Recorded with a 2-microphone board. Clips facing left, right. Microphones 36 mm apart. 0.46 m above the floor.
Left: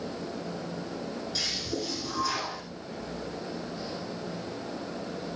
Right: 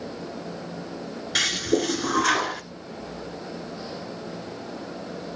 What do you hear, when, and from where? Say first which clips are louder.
1.4 s a toilet flushing: right 13 dB; 75° right (ahead or behind), 1.2 m